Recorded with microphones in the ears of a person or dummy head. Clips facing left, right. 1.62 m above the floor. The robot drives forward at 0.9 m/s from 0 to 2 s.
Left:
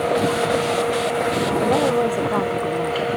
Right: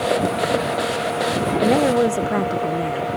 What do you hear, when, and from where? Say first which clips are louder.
1.6 s a woman speaking: right 3 dB; 20° right (ahead or behind); by 3.1 s 15° right (ahead or behind)